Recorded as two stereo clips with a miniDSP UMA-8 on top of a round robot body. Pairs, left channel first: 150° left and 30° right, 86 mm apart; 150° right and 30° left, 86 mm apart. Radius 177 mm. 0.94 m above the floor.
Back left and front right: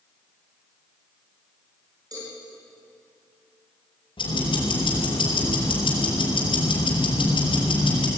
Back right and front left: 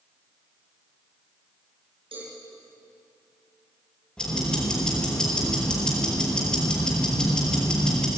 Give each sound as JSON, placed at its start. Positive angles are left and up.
{"t": 2.1, "sound": "a cowbell", "azimuth_deg": 20, "distance_m": 6.5}
{"t": 4.2, "sound": "ticking", "azimuth_deg": 130, "distance_m": 4.5}